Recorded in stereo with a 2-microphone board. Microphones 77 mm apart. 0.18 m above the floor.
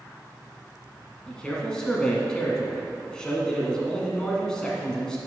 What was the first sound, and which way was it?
A man speaking, 10° left (ahead or behind).